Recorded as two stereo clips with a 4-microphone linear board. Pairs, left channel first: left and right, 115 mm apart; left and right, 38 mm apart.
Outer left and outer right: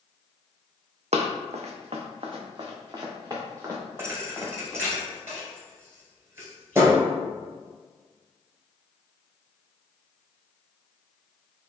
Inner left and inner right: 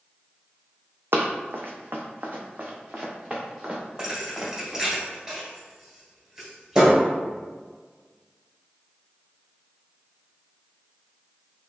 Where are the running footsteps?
75° right (ahead or behind), 0.6 m; by 4.8 s 25° right (ahead or behind), 2.0 m.